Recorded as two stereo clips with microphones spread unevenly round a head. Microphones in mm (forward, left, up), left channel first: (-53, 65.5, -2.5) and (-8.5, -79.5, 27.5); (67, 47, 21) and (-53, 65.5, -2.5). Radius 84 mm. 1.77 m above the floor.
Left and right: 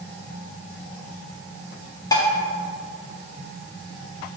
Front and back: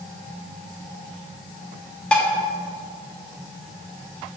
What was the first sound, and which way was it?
Dishes clattering, 40° left.